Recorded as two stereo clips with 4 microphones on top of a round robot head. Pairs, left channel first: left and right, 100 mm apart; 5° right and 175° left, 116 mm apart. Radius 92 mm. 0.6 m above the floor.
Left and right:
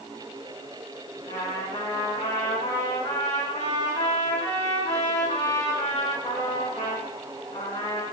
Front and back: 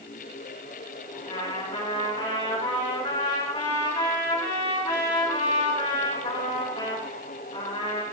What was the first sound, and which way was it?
A trumpet, 45° left.